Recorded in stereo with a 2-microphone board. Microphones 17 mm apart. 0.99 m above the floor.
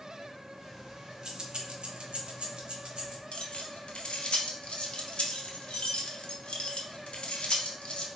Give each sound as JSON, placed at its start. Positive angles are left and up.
{"t": 0.6, "sound": "keys jangling", "side_deg": -15, "distance_m": 0.8}
{"t": 3.3, "sound": "keys jangling", "side_deg": 80, "distance_m": 0.5}